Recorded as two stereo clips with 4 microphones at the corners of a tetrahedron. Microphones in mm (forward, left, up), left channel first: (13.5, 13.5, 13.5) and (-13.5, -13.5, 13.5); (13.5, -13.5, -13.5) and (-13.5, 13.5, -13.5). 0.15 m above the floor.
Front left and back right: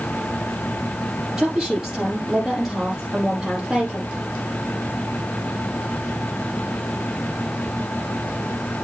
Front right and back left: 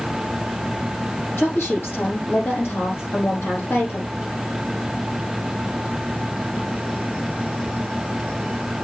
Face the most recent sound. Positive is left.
turn(degrees=-60)